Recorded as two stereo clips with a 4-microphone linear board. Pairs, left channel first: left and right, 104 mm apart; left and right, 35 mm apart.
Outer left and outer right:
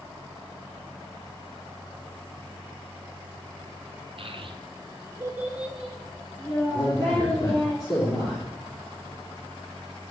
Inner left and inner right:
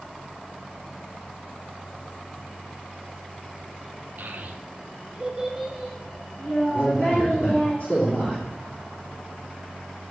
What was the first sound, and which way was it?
A child speaking, 60° right (ahead or behind).